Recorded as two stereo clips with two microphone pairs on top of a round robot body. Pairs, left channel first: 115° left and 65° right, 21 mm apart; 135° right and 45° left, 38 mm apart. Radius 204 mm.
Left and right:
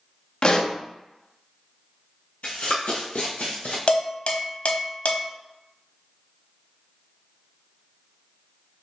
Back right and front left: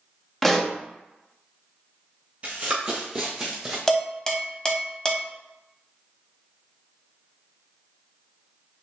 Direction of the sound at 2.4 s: 105° left.